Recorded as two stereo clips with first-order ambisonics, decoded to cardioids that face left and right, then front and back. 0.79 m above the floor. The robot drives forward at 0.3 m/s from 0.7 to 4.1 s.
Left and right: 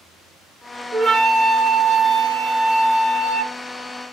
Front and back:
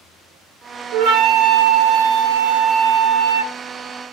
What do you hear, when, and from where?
0.9 s a flute: 155° right, 0.6 m; by 3.5 s 170° right, 1.3 m